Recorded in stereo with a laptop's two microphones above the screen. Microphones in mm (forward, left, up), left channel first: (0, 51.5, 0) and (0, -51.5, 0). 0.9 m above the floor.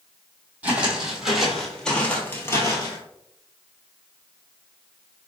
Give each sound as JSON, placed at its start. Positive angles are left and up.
{"t": 0.6, "sound": "footsteps", "side_deg": -15, "distance_m": 1.6}